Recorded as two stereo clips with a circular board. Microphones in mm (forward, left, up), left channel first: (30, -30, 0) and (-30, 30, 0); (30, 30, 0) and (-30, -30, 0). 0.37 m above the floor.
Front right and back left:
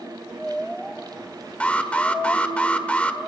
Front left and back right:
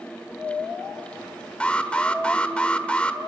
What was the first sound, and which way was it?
An alarm, straight ahead.